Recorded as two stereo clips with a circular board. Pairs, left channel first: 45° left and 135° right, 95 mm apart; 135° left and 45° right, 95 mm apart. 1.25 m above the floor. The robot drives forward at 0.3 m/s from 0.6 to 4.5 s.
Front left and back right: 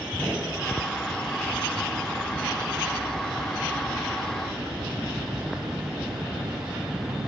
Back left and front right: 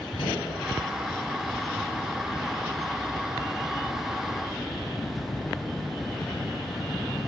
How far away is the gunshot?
About 1.8 m.